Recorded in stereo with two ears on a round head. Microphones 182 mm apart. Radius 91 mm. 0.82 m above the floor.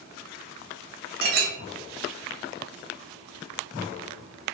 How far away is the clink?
About 0.8 m.